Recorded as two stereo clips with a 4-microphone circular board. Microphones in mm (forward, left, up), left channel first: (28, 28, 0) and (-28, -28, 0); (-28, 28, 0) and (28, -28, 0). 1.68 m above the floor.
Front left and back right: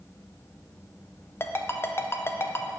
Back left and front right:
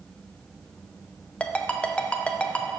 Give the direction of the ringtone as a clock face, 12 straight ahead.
10 o'clock.